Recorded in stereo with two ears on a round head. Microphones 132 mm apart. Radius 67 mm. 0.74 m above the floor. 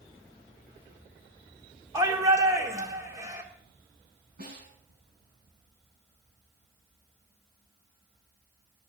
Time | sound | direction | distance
1.9 | a shout | 25° right (ahead or behind) | 2 m
4.4 | a snare drum | 65° right (ahead or behind) | 9 m